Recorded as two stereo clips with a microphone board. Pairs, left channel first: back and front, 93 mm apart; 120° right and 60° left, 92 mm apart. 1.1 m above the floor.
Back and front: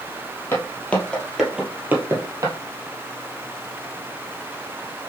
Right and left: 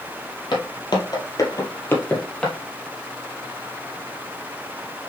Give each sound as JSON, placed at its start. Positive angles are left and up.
{"t": 0.5, "sound": "footsteps", "azimuth_deg": -120, "distance_m": 1.9}